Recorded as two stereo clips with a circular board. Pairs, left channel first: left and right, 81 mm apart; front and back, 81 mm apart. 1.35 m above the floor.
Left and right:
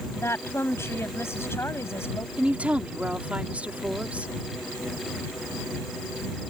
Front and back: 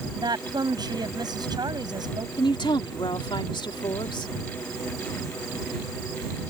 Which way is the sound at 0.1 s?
150° left.